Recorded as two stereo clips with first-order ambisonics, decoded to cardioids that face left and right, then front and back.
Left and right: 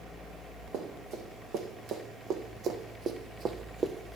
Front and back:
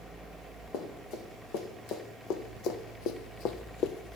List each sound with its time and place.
0.7 s running footsteps: 35° right, 2.5 m; by 4.2 s 15° right, 0.7 m